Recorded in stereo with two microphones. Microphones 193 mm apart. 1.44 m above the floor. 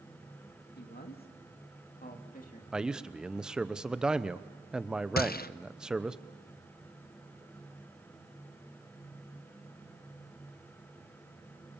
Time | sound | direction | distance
0.8 | a man speaking | 60° left (ahead or behind) | 2.0 m
2.7 | a man speaking | 5° right (ahead or behind) | 0.8 m
5.2 | a gunshot | 50° left (ahead or behind) | 0.5 m